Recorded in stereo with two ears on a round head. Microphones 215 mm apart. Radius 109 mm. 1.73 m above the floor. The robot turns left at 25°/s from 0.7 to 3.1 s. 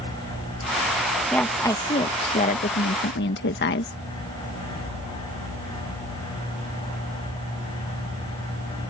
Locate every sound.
1.3 s a woman speaking: 175° left; by 3.9 s 130° left